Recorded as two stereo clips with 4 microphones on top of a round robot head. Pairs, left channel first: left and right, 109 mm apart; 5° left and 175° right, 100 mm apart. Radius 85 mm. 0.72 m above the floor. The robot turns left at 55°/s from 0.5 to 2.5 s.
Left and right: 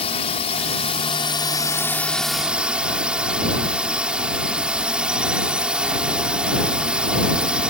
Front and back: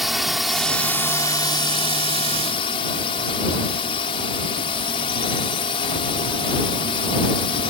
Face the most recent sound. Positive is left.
turn(degrees=-10)